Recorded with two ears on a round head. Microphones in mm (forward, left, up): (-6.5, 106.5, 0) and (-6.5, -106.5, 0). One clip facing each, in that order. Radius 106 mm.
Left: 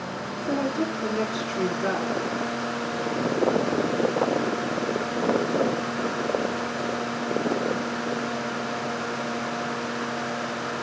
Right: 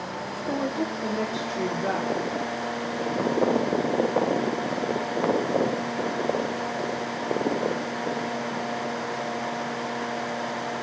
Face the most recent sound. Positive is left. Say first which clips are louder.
# left 2 dB
turn(degrees=10)  # may be behind; listen again after turning